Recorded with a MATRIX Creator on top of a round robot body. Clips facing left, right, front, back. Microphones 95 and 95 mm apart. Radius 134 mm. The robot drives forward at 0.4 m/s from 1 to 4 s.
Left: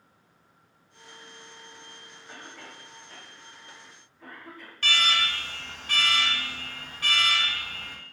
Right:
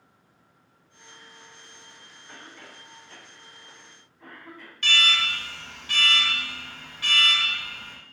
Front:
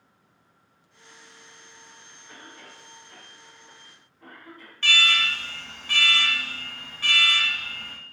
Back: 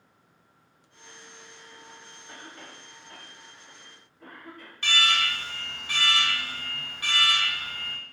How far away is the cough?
About 1.9 m.